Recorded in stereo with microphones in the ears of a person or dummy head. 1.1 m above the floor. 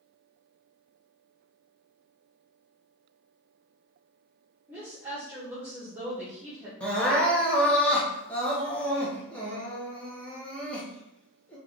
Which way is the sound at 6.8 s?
5° left (ahead or behind).